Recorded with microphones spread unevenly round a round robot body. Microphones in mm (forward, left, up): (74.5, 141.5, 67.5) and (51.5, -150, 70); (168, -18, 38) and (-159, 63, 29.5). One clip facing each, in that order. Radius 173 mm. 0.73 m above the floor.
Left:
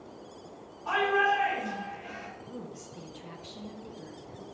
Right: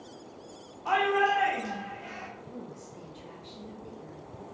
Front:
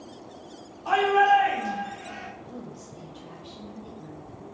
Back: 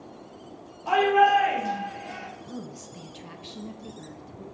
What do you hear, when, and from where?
0.8 s a shout: 85° right, 1.9 m
2.4 s a woman speaking: 145° left, 0.7 m